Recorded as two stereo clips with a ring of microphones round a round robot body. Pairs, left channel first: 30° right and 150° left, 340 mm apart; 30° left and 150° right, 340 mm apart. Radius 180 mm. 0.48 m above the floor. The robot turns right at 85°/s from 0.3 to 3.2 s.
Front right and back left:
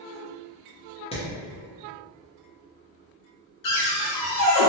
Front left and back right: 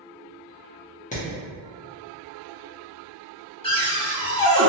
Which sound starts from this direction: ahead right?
A cupboard door, at 3.6 s.